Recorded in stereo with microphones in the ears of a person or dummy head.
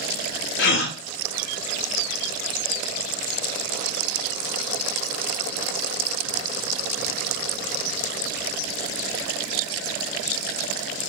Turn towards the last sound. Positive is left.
turn(degrees=65)  # may be behind; listen again after turning